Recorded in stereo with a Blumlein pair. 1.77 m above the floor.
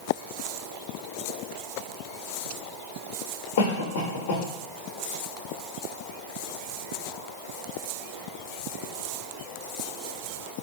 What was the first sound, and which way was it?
A cough, 55° left.